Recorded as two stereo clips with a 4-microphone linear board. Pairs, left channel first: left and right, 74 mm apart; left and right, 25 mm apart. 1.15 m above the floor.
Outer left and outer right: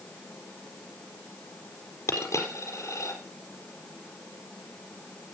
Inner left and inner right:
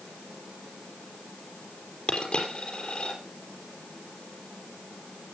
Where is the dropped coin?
40° left (ahead or behind), 4.5 m.